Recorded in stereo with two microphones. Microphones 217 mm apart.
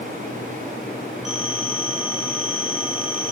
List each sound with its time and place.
1.2 s a phone ringing: centre (ahead or behind), 3 m